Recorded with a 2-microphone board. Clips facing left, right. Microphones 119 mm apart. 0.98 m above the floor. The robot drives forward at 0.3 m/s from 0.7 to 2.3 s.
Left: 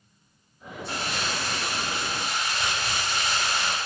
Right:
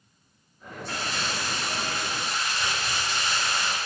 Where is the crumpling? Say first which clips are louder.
Left 1 dB; 10° left (ahead or behind), 3.5 m.